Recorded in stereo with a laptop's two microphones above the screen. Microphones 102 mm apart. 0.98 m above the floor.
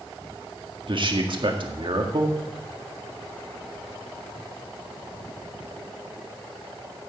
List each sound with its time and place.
0.9 s a man speaking: 55° right (ahead or behind), 1.7 m